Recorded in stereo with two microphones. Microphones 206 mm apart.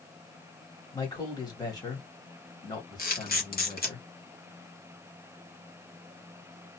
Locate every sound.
0.9 s a man speaking: 20° left (ahead or behind), 1.6 m
3.0 s a camera shutter: 45° left (ahead or behind), 1.4 m